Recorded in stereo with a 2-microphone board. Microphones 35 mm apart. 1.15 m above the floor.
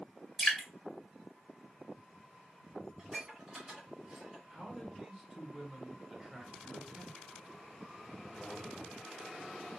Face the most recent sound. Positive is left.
turn(degrees=-10)  # may be behind; listen again after turning